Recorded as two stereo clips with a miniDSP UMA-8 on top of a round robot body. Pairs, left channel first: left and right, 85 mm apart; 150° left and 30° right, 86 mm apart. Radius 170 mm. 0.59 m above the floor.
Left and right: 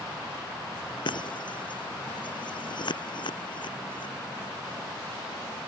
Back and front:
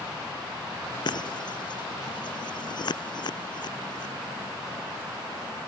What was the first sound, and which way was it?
Breaking glass, 120° left.